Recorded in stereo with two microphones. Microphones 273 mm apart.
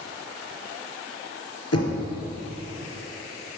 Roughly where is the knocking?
Left.